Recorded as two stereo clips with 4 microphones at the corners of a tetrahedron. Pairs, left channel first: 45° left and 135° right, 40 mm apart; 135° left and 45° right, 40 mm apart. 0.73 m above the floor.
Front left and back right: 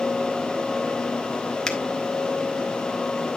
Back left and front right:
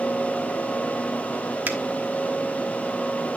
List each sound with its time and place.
1.7 s a finger snap: 30° right, 1.1 m